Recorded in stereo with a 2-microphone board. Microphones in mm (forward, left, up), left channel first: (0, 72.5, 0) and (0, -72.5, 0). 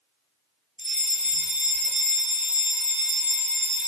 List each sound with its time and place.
0.8 s a fire alarm: 55° right (ahead or behind), 3.5 m